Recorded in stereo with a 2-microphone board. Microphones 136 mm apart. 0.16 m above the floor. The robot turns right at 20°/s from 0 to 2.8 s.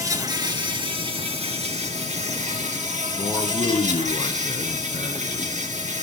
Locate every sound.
0.0 s an insect: 155° right, 3 m; by 6.0 s 95° right, 3 m
3.2 s a man speaking: 45° left (ahead or behind), 1.8 m